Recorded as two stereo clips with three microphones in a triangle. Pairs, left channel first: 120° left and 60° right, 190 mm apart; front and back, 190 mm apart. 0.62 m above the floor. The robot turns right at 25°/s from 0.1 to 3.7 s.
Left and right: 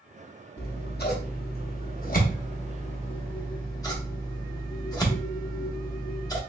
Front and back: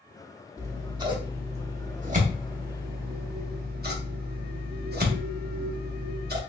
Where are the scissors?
110° left, 0.9 m; by 6.4 s 175° right, 0.9 m.